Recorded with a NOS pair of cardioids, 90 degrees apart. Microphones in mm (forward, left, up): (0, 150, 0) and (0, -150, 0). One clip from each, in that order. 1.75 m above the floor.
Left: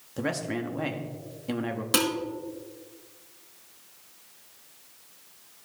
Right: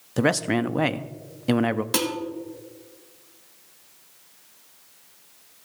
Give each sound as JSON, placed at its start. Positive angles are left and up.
{"t": 0.2, "sound": "a man speaking", "azimuth_deg": -45, "distance_m": 0.6}
{"t": 1.9, "sound": "dishes clattering", "azimuth_deg": 15, "distance_m": 3.0}